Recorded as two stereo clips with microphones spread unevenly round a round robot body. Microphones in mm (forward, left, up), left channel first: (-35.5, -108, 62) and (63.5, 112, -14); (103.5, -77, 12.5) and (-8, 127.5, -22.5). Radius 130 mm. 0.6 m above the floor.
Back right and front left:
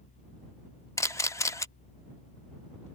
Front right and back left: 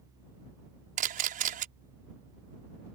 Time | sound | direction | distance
1.0 | a camera shutter | 155° left | ?